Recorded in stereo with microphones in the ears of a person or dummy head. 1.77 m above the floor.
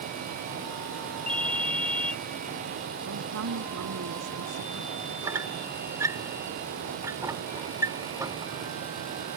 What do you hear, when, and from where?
1.3 s a ringtone: 10° left (ahead or behind)
3.0 s a woman speaking: 85° right
5.2 s a squeak: 5° right (ahead or behind)